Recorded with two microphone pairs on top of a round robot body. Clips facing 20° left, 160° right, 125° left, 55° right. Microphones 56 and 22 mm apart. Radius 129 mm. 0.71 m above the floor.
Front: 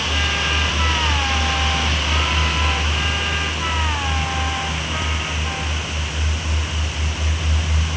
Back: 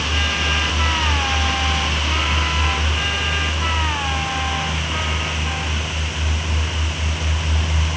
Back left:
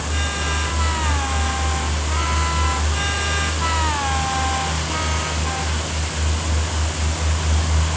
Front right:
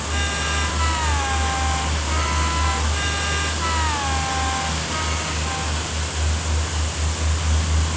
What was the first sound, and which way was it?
Only background noise.